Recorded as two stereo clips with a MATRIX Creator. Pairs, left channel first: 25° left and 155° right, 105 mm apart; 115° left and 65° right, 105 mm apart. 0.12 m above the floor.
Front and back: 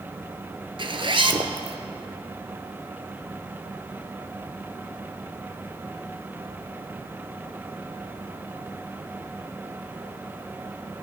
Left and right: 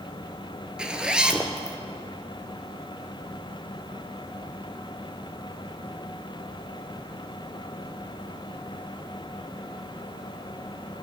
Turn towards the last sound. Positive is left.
turn(degrees=-145)